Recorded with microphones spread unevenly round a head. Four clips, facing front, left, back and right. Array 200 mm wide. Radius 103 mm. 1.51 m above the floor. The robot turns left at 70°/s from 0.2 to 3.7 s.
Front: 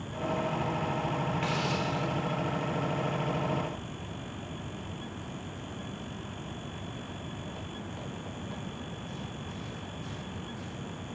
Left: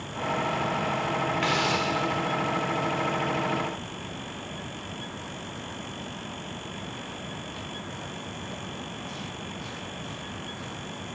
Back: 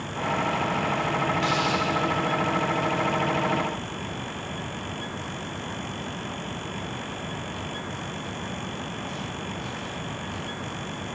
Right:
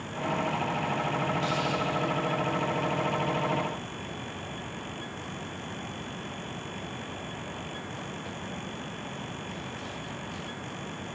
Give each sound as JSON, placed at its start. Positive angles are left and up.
{"t": 1.4, "sound": "a hiss", "azimuth_deg": 105, "distance_m": 2.0}